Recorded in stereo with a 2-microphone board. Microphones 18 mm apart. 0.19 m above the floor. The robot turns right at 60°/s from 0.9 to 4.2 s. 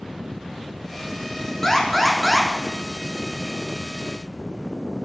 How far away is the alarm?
About 1.2 m.